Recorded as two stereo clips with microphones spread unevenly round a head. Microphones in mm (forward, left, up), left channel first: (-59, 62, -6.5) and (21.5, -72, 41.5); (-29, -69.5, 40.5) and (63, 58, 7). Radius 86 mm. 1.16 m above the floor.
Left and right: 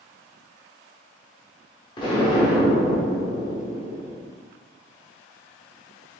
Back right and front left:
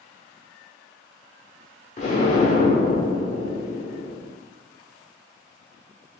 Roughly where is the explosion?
Behind.